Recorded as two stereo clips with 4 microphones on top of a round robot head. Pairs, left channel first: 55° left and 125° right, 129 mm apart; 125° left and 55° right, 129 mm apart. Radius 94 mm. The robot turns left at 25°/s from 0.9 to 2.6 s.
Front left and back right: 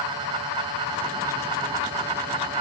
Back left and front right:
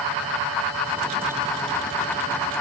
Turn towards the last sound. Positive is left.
No sound to turn to.